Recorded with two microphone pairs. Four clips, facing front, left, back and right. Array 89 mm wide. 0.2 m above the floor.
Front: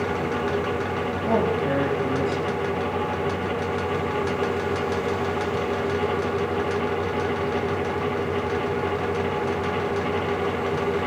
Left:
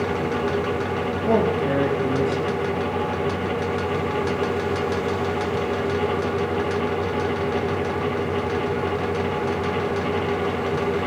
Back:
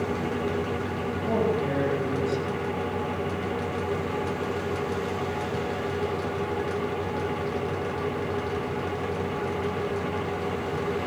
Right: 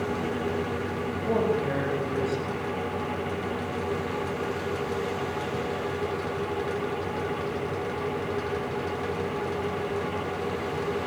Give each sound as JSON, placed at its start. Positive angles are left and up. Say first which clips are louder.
{"t": 1.3, "sound": "a man speaking", "louder": "left 5 dB, front 3 dB", "azimuth_deg": 75, "distance_m": 7.0}